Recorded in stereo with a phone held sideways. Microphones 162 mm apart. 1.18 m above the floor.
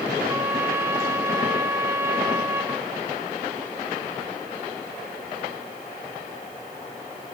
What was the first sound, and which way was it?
A trumpet, 15° right (ahead or behind).